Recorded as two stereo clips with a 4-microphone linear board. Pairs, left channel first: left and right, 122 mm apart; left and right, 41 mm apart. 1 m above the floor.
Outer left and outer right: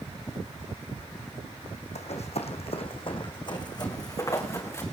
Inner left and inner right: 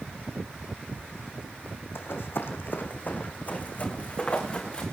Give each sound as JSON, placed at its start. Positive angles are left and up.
{"t": 1.9, "sound": "running footsteps", "side_deg": 65, "distance_m": 2.0}